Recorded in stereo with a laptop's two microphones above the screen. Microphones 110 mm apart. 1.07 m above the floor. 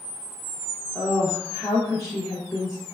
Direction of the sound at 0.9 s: 25° left (ahead or behind).